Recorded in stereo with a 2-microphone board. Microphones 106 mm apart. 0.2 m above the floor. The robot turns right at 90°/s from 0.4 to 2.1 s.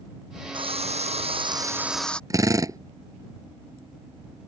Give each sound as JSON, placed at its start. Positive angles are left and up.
{"t": 0.5, "sound": "a drill", "azimuth_deg": -130}
{"t": 2.3, "sound": "a drill", "side_deg": -30}